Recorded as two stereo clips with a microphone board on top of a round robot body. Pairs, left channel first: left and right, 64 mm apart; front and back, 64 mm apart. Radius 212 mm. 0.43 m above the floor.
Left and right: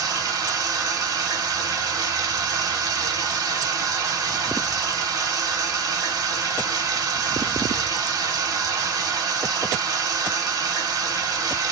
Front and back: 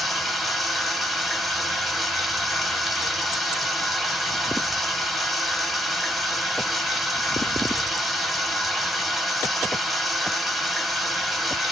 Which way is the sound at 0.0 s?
90° right.